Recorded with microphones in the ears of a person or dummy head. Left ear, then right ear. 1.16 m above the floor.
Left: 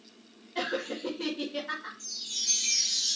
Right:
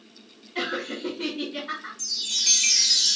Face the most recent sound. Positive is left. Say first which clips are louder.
# right 12 dB
turn(degrees=-50)  # may be behind; listen again after turning